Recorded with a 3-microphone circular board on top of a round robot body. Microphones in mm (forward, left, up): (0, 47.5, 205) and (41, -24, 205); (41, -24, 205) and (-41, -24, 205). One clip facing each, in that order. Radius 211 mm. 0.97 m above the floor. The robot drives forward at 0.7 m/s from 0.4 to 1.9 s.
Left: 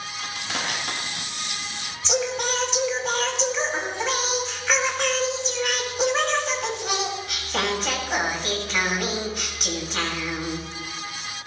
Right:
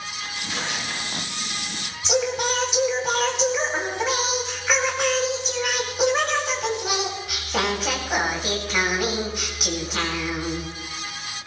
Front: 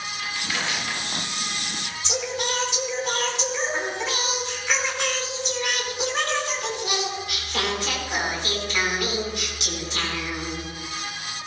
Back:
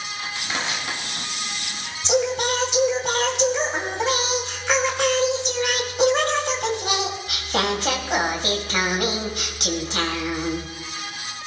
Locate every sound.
0.2 s crushing: 115° left, 6 m; by 1.9 s 125° left, 6.5 m
2.0 s singing: 145° right, 2.5 m